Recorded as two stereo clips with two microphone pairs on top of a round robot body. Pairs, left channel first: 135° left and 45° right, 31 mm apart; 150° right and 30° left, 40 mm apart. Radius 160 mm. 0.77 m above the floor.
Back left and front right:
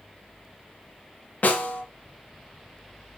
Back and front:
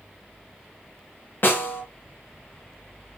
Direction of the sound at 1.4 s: 175° left.